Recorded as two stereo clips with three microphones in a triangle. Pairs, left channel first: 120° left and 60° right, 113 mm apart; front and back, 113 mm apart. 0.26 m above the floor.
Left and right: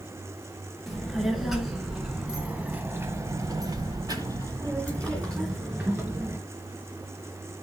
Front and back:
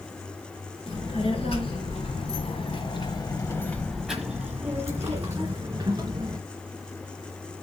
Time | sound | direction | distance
0.9 | a child speaking | 30° left | 3 m